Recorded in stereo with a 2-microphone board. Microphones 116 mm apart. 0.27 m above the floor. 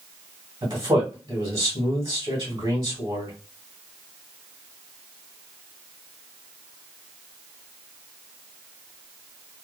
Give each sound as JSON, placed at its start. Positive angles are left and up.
{"t": 0.6, "sound": "a man speaking", "side_deg": -40, "distance_m": 1.6}